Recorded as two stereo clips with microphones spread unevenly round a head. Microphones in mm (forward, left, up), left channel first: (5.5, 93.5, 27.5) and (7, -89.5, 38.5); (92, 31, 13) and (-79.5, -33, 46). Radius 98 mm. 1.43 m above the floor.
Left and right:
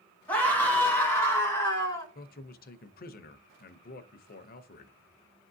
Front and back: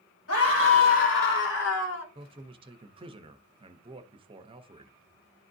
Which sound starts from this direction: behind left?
A man speaking, at 2.1 s.